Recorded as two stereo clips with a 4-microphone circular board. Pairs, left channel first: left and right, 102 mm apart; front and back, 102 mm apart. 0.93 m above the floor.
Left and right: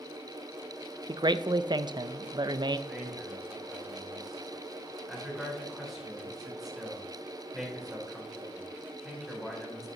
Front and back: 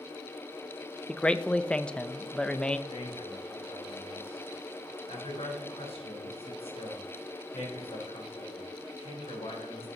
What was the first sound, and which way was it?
A man speaking, 75° right.